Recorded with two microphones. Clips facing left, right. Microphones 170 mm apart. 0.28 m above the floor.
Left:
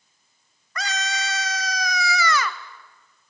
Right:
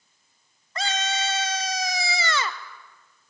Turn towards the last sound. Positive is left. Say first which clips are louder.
# right 2 dB
turn(degrees=-25)  # may be behind; listen again after turning